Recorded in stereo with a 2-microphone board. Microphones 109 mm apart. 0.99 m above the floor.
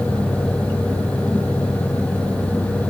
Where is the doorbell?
I don't hear a doorbell.